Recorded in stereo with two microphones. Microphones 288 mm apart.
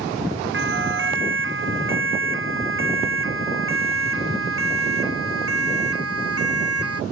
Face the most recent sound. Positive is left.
turn(degrees=-55)  # may be behind; listen again after turning